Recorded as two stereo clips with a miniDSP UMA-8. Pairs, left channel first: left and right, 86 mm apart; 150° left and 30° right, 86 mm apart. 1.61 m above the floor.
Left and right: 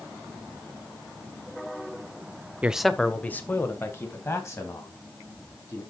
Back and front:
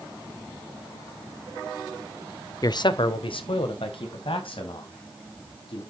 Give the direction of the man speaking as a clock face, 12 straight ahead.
5 o'clock.